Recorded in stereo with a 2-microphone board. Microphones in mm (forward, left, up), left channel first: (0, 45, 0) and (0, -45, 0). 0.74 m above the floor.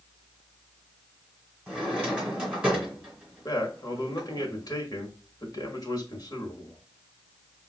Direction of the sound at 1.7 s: 15° right (ahead or behind).